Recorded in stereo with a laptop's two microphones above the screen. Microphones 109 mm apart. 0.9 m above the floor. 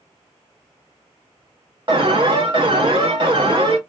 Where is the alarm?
50° right (ahead or behind), 0.7 m.